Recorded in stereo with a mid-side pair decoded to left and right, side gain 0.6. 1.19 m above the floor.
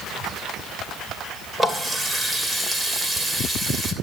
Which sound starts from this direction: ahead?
A running tap, at 1.6 s.